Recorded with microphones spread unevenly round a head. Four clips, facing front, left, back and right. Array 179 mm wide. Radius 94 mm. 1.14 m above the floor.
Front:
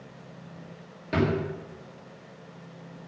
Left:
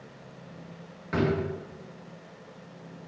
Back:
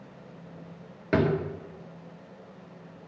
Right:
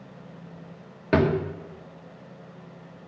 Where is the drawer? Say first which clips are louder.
Right 5 dB, back 1 dB; 105° right, 1.3 m.